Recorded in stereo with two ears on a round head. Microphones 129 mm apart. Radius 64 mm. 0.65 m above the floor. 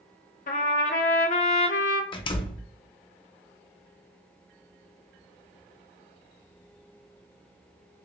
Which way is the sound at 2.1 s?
35° left (ahead or behind).